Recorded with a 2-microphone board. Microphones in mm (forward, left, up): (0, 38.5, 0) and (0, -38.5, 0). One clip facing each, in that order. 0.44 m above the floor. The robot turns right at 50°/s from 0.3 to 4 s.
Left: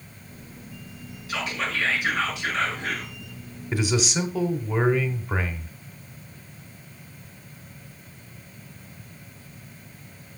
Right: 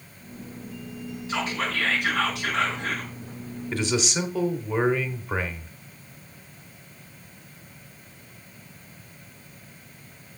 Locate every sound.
1.3 s whispering: 150° right, 4.5 m; by 3.1 s 55° right, 4.5 m
3.7 s a man speaking: 10° left (ahead or behind), 1.0 m; by 5.7 s centre (ahead or behind), 1.0 m